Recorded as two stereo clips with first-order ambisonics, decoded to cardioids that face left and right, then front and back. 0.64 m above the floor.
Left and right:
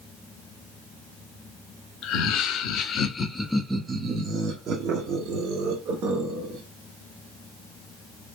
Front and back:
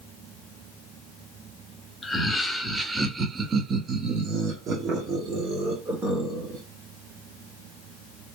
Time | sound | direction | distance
2.0 | laughter | 85° left | 0.9 m